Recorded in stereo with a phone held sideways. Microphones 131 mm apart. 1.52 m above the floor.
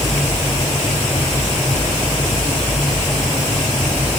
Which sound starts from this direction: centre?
A fan, at 0.0 s.